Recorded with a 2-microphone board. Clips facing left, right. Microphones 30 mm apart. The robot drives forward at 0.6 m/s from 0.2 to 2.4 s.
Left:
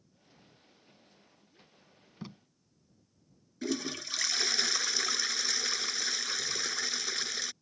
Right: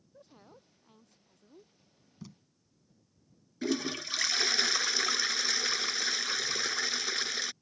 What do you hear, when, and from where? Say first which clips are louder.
0.1 s a woman speaking: right 7 dB; 75° right (ahead or behind); by 1.7 s 80° right
2.2 s tape being pulled: left 4 dB; 40° left (ahead or behind)
3.6 s a toilet flushing: right 2 dB; 10° right (ahead or behind)